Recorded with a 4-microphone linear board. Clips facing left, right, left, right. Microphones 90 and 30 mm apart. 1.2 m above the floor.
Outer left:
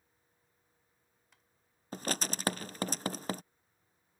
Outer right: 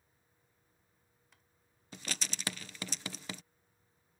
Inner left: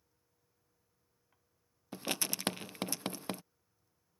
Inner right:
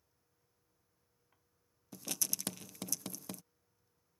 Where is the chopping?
I don't hear chopping.